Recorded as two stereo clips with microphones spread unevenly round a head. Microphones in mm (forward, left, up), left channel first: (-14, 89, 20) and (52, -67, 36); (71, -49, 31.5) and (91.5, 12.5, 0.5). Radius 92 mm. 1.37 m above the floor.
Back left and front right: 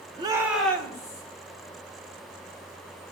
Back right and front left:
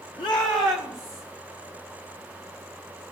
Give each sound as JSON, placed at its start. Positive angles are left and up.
{"t": 0.2, "sound": "a shout", "azimuth_deg": -130, "distance_m": 1.0}